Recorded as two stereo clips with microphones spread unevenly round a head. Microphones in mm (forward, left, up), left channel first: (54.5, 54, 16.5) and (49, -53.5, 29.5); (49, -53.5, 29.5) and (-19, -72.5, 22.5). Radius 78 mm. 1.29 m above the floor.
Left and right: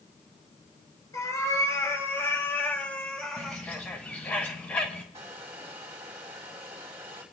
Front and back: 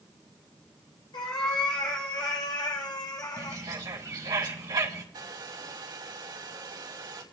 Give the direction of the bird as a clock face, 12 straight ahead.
7 o'clock.